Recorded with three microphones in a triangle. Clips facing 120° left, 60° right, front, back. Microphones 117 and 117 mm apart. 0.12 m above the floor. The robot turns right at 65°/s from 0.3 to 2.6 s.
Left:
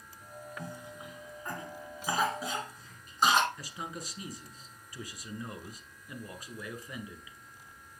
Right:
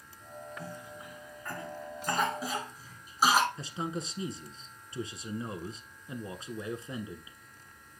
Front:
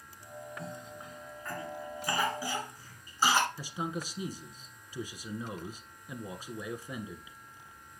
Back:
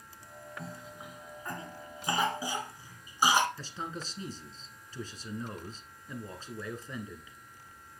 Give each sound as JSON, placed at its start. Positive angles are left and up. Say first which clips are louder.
{"t": 0.6, "sound": "a cough", "louder": "even, front 2 dB", "azimuth_deg": 95, "distance_m": 1.5}
{"t": 3.6, "sound": "a man speaking", "louder": "right 6 dB, front 3 dB", "azimuth_deg": -60, "distance_m": 1.1}